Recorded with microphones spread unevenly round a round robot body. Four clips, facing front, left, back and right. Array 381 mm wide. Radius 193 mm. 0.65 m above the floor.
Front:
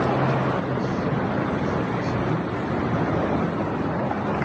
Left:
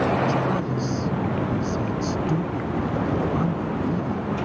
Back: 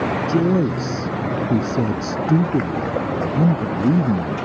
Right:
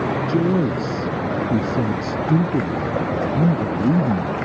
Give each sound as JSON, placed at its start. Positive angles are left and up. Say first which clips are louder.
{"t": 0.3, "sound": "a man speaking", "louder": "right 5 dB, back 6 dB", "azimuth_deg": -140}